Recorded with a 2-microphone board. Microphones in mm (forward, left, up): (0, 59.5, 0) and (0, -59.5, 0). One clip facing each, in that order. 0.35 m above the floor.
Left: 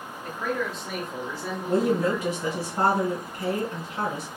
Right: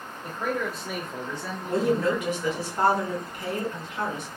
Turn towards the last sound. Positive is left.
turn(degrees=35)  # may be behind; listen again after turning